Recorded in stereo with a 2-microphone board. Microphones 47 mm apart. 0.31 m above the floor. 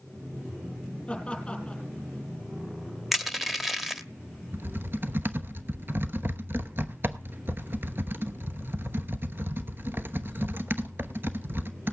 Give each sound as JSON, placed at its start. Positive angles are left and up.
{"t": 1.1, "sound": "laughter", "side_deg": 20, "distance_m": 4.5}
{"t": 3.1, "sound": "crushing", "side_deg": -5, "distance_m": 1.1}
{"t": 4.5, "sound": "typing on a keyboard", "side_deg": -50, "distance_m": 1.0}